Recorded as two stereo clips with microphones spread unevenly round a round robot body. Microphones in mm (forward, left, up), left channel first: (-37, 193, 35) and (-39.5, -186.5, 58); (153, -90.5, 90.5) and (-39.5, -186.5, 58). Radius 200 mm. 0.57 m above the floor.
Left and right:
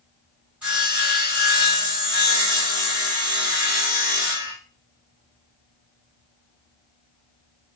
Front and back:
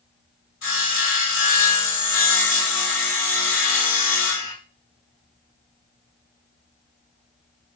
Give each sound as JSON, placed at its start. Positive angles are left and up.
{"t": 0.6, "sound": "sawing", "azimuth_deg": -5, "distance_m": 2.0}